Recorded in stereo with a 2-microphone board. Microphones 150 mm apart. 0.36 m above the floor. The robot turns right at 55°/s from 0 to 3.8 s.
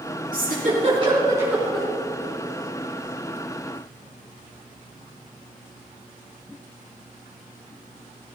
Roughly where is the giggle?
Right.